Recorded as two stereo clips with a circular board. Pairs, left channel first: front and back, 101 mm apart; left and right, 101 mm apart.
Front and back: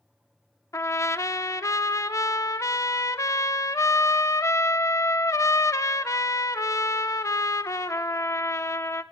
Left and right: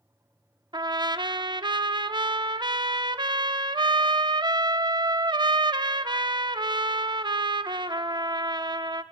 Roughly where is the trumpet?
Ahead right.